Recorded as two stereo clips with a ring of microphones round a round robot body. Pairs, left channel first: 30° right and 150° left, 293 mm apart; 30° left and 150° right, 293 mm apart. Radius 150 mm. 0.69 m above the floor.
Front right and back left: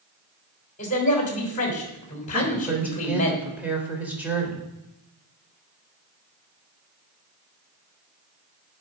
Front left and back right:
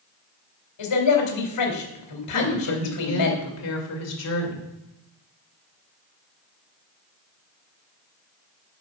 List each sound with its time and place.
0.8 s a man speaking: 35° left, 3 m
2.3 s a woman speaking: 65° left, 2.5 m